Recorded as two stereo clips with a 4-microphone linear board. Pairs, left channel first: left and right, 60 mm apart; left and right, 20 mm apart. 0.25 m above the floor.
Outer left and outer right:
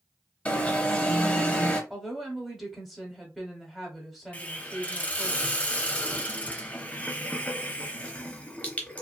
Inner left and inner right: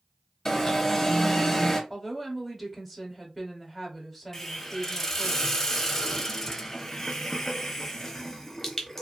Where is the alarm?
20° left (ahead or behind), 0.7 m.